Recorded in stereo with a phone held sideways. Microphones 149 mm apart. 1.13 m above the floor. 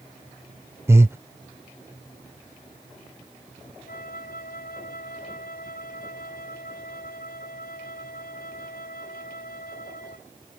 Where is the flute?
75° left (ahead or behind).